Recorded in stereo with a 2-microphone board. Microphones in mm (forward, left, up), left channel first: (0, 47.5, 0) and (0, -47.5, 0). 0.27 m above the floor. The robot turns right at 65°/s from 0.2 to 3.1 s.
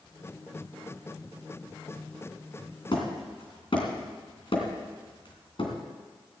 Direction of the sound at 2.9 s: 60° left (ahead or behind).